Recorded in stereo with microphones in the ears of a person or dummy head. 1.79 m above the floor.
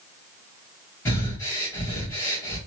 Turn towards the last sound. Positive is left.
turn(degrees=15)  # may be behind; listen again after turning